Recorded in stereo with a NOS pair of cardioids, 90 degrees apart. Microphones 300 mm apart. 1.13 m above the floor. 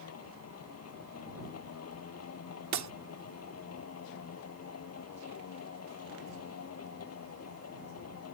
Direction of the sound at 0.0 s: 55° left.